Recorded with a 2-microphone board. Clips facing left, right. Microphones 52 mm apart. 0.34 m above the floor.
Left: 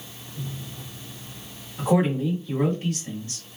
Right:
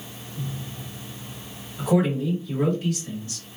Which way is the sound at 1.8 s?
30° left (ahead or behind).